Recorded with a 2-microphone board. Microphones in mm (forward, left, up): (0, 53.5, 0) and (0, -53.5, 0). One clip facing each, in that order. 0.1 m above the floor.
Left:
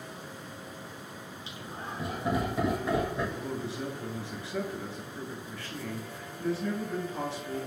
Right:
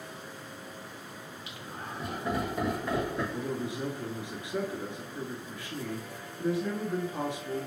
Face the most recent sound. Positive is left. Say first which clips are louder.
# right 2 dB
turn(degrees=-15)  # may be behind; listen again after turning